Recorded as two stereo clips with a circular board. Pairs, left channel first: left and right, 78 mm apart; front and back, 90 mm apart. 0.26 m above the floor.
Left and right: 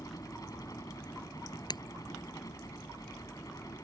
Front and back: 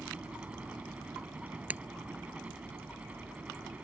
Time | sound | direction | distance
0.0 | a helicopter | 110° left | ?
1.7 | breaking glass | 110° left | ?